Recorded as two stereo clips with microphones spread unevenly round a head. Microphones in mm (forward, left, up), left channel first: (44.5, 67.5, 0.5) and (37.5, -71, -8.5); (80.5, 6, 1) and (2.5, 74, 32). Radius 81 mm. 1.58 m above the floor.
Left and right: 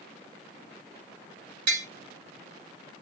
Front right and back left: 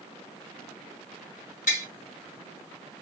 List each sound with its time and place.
1.7 s tapping: 90° right, 2.5 m